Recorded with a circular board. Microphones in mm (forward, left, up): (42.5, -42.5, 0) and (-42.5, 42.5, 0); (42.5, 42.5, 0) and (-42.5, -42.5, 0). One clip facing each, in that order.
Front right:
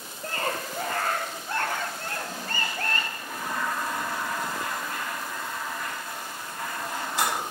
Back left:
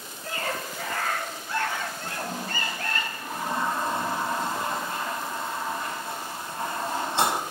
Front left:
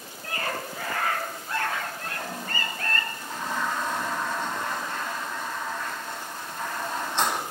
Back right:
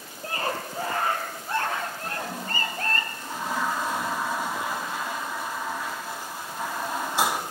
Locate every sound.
0.2 s a scream: 75° right, 6.5 m; by 3.0 s 80° right, 4.5 m
2.0 s a toilet flushing: 155° left, 1.5 m